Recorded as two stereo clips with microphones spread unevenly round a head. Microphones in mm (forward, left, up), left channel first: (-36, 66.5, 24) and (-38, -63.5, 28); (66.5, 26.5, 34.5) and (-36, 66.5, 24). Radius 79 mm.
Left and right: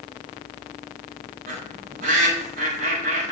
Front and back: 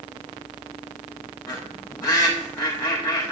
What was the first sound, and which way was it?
A bird, 100° right.